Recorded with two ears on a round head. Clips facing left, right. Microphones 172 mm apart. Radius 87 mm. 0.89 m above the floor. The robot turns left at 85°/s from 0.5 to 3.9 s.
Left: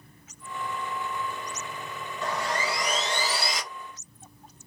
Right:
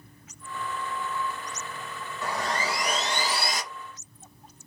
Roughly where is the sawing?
Ahead.